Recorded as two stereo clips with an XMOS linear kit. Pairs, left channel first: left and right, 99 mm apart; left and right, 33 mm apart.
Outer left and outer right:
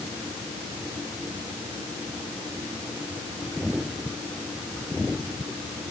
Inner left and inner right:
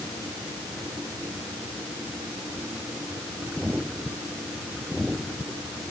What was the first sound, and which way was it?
Only background noise.